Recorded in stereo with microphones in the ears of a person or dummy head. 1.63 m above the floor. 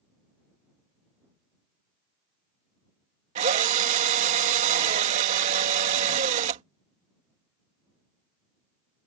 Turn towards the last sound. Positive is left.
turn(degrees=-45)  # may be behind; listen again after turning